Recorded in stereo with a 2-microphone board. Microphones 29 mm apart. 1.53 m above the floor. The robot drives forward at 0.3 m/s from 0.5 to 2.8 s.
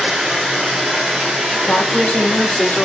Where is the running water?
25° right (ahead or behind), 1.7 m; by 2.9 s 20° right (ahead or behind), 2 m.